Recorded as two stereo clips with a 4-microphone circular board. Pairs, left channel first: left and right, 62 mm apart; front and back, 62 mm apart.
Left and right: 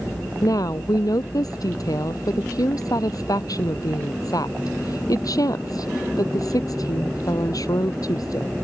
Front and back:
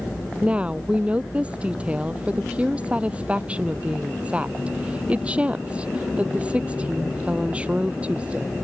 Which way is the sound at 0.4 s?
110° left.